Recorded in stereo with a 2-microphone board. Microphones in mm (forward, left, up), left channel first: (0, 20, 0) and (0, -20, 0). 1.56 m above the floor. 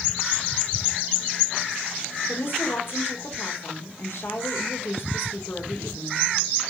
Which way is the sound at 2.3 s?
65° left (ahead or behind).